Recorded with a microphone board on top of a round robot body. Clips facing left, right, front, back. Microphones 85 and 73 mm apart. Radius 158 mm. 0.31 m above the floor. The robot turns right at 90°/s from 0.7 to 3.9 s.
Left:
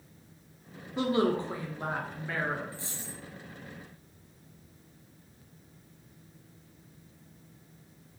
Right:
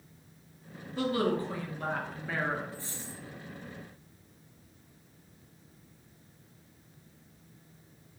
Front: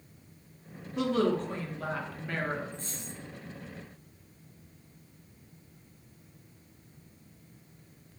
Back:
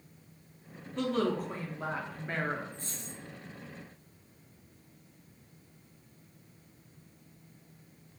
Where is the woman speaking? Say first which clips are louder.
Left 2 dB, front 3 dB; 70° left, 0.9 m; by 2.6 s 140° right, 0.9 m.